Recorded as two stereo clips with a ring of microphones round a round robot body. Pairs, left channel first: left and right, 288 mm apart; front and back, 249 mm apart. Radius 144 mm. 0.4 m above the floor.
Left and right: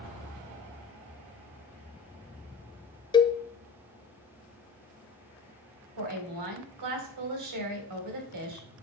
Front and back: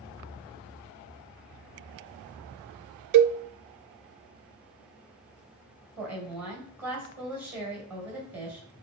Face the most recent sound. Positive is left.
turn(degrees=-95)